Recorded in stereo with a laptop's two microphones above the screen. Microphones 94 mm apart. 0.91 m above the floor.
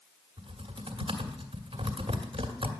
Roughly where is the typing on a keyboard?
Right.